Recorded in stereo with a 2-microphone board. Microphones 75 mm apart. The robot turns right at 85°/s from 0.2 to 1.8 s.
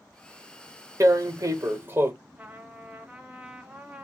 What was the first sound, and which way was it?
Tearing paper, 110° right.